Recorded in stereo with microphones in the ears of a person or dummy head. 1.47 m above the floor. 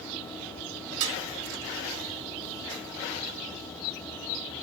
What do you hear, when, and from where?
1.0 s dishes clattering: 65° right (ahead or behind), 1.9 m